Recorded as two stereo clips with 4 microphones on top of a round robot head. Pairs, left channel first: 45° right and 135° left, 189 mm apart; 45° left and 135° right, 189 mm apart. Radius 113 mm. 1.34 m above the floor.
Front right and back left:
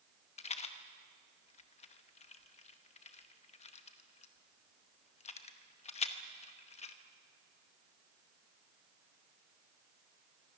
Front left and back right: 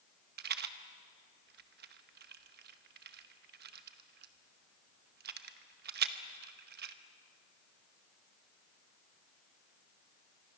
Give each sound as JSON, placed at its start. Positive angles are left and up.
{"t": 0.4, "sound": "a rattle", "azimuth_deg": -100, "distance_m": 0.9}